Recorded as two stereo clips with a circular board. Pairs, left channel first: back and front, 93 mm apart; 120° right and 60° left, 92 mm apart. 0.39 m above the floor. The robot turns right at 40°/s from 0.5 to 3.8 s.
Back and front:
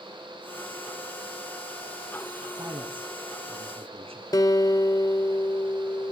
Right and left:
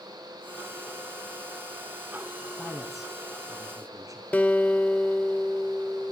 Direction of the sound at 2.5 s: 45° right.